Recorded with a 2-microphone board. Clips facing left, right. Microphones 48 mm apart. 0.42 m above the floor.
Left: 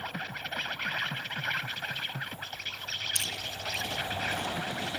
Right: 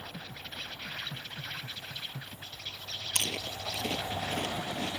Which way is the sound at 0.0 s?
60° left (ahead or behind).